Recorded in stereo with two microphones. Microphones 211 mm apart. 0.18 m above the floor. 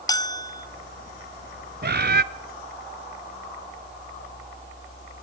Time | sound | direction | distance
0.1 | a bell | 20° left (ahead or behind) | 0.7 m
1.8 | a bird | 50° right (ahead or behind) | 0.6 m